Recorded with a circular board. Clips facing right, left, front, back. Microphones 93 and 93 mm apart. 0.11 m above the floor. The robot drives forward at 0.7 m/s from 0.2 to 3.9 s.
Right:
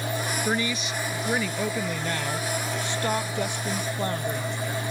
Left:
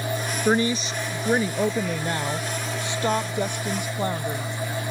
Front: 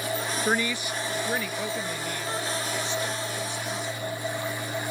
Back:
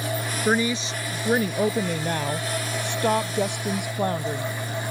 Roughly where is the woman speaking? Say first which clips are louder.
Left 9 dB, back 6 dB; left.